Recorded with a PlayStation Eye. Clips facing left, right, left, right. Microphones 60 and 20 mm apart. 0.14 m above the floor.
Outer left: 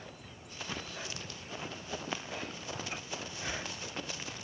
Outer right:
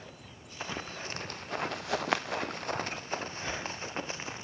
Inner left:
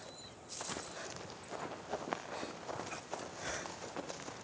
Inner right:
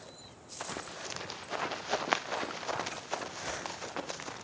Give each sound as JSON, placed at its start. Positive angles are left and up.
{"t": 0.6, "sound": "running footsteps", "side_deg": -30, "distance_m": 2.0}